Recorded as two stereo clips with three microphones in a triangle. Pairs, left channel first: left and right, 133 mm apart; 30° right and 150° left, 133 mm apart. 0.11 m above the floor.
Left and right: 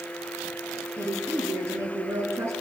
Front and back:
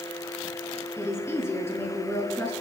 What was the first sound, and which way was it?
A woman speaking, 65° right.